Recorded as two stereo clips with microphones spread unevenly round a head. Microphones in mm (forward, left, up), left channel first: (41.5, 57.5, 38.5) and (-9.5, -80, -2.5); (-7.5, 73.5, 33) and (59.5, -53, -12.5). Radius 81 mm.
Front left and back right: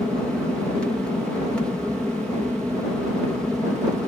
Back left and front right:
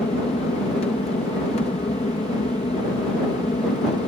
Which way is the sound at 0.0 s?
170° left.